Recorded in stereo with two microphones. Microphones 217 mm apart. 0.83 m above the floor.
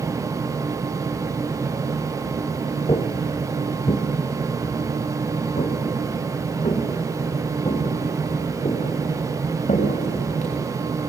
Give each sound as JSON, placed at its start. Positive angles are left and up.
{"t": 2.9, "sound": "footsteps", "side_deg": 25, "distance_m": 1.0}